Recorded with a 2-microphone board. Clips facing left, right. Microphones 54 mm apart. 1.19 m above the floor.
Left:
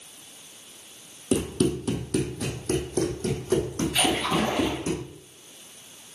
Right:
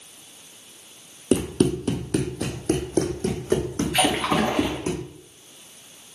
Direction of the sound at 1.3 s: 45° right (ahead or behind).